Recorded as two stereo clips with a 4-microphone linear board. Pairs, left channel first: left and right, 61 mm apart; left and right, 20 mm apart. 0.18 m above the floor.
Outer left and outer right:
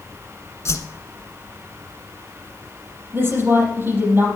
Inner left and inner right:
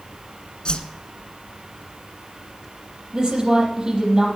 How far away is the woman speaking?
About 5 m.